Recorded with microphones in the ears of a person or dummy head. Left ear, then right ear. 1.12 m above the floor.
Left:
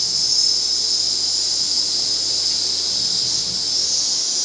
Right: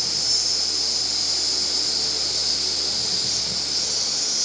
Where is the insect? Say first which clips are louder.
Left 4 dB; 10° left (ahead or behind), 0.8 m.